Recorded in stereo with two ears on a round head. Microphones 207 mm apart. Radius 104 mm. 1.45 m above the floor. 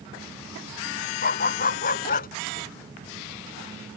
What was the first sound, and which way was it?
A dog barking, 40° left (ahead or behind).